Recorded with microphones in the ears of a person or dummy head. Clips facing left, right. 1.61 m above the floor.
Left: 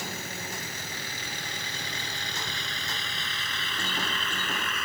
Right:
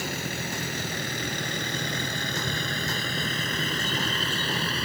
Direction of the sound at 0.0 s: 55° right (ahead or behind).